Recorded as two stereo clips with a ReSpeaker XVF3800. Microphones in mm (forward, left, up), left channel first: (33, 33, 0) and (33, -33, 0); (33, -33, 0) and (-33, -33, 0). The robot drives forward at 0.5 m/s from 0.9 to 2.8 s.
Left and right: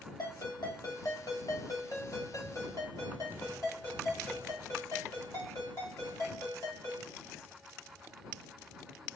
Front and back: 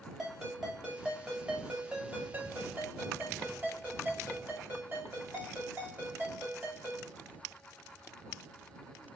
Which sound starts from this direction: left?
A ringtone, at 0.2 s.